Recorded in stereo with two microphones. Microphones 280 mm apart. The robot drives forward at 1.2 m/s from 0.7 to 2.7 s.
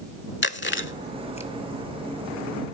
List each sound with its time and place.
0.4 s chewing: 40° left (ahead or behind), 0.5 m; by 1.5 s 20° left (ahead or behind), 1.0 m